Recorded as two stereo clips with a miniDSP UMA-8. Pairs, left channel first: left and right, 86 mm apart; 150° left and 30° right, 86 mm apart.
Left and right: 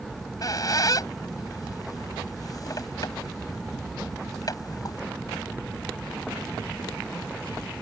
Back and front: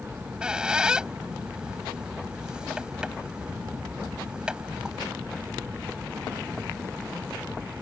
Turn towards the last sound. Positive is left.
turn(degrees=50)